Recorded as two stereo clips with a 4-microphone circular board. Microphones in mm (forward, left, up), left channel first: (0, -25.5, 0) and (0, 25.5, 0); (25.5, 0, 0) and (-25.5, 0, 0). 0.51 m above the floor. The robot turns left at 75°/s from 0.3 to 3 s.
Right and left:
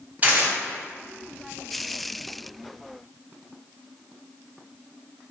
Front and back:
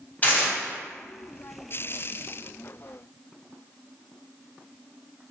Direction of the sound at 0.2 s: 40° left.